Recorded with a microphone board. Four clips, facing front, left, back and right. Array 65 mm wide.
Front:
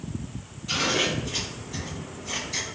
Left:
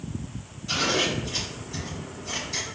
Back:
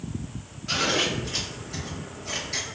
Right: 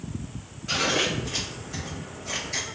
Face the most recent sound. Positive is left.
turn(degrees=-135)